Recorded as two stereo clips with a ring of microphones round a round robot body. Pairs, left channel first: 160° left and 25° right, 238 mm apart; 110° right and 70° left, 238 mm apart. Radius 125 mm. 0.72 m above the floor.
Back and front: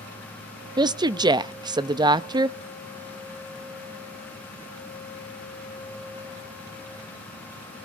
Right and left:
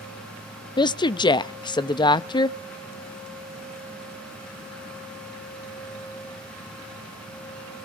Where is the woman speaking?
70° right, 0.5 m.